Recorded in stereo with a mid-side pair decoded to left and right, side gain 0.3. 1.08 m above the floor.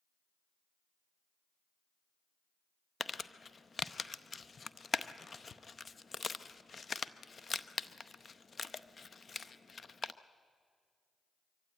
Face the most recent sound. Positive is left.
turn(degrees=45)